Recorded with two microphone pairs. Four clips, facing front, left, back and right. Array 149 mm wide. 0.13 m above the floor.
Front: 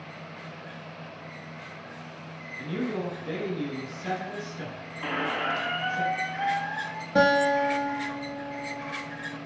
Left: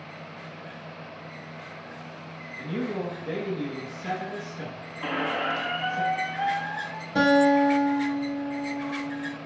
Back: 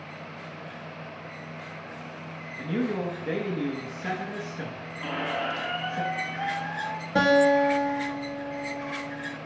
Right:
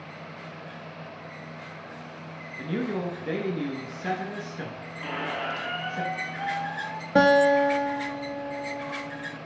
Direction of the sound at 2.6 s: 125° right.